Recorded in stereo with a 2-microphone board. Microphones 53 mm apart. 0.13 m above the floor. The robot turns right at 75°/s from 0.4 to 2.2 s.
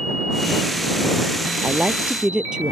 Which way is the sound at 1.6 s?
60° right.